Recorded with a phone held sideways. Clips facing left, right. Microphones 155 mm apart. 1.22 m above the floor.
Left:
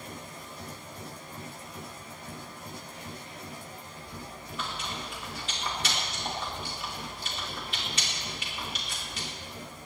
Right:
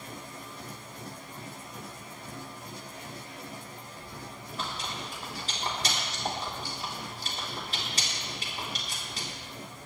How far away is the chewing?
About 3.5 m.